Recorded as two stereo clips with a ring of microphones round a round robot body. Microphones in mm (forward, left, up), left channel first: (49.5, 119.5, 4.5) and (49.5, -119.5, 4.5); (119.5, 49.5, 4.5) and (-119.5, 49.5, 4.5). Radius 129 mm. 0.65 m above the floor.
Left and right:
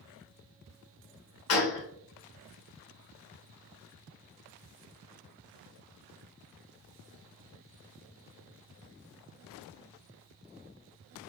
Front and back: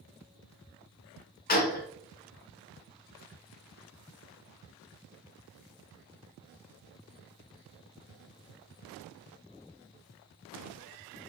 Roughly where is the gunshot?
Ahead left.